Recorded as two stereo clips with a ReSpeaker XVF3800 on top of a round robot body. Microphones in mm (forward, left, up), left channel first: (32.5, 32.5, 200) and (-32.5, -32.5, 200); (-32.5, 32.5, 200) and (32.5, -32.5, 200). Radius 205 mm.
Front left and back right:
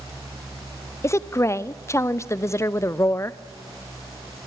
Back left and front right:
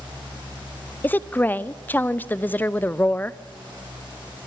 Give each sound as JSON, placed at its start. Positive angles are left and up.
{"t": 1.0, "sound": "a woman speaking", "azimuth_deg": 80, "distance_m": 0.7}